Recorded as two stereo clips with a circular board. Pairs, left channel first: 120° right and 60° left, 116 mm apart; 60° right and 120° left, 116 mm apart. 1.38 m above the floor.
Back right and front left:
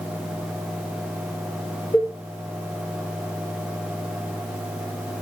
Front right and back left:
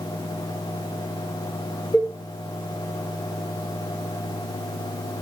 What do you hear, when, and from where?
1.9 s a cowbell: 100° right, 0.7 m